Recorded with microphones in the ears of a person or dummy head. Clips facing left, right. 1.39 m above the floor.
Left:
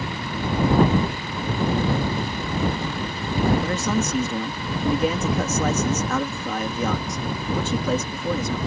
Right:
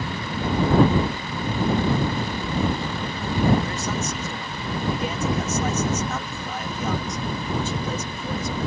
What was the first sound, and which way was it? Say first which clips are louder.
A man speaking: left 4 dB; 65° left (ahead or behind).